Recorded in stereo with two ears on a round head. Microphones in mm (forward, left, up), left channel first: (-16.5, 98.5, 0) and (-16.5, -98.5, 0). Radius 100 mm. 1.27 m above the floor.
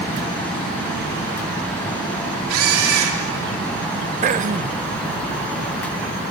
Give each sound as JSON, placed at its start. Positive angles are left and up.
{"t": 2.5, "sound": "a camera shutter", "side_deg": -75, "distance_m": 3.0}
{"t": 4.2, "sound": "throat clearing", "side_deg": -35, "distance_m": 0.7}